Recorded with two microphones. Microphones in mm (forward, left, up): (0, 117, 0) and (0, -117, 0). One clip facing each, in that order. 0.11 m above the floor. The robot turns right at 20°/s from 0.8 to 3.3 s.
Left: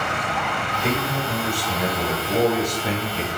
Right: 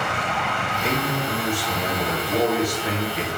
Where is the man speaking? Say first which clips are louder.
Even; straight ahead, 1.6 m; by 3.3 s 50° left, 1.6 m.